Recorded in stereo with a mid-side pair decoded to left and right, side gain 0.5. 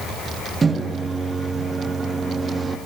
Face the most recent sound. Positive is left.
turn(degrees=-30)